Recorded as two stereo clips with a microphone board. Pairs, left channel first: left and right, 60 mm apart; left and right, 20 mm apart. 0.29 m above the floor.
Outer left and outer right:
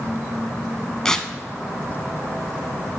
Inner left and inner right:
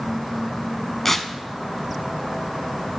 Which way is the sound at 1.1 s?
15° left (ahead or behind).